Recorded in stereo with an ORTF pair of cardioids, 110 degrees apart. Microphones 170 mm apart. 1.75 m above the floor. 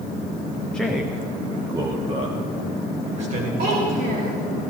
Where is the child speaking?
65° right, 3.5 m.